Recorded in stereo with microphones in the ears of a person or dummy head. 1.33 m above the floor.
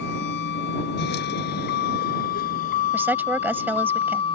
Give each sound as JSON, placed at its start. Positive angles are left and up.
{"t": 0.0, "sound": "a vehicle", "side_deg": 70}
{"t": 2.9, "sound": "a woman speaking", "side_deg": -5}